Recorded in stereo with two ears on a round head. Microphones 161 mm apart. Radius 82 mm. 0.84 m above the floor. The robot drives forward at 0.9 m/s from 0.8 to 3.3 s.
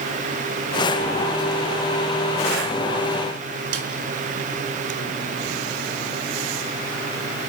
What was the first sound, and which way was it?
A snare drum, 80° right.